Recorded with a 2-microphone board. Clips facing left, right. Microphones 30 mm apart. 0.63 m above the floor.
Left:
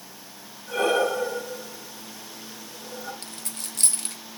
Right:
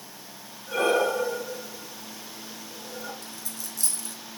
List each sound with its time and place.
0.7 s breathing: 10° right (ahead or behind), 4.5 m
3.2 s a dropped coin: 60° left (ahead or behind), 0.9 m